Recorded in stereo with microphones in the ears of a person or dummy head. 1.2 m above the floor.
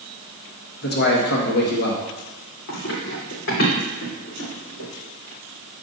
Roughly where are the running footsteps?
Left.